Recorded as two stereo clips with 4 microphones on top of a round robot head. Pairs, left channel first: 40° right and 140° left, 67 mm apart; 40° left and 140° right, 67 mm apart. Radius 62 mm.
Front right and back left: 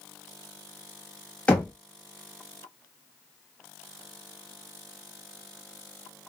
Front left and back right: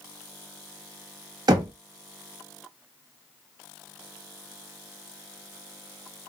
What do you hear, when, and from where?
1.5 s knocking: 110° right, 0.9 m